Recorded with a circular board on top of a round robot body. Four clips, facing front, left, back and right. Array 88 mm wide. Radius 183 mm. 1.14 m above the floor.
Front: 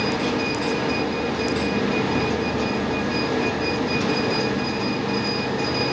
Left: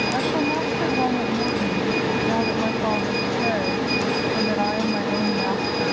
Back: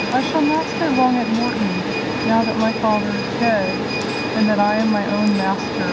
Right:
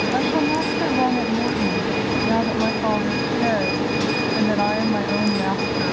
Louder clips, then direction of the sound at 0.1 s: Right 4 dB, back 7 dB; 170° right.